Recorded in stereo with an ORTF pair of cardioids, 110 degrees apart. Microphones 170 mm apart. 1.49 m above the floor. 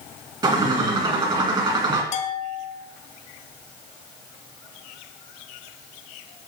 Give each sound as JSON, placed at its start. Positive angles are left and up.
{"t": 0.4, "sound": "a bird", "azimuth_deg": -30, "distance_m": 2.0}
{"t": 2.1, "sound": "a bell", "azimuth_deg": 50, "distance_m": 1.1}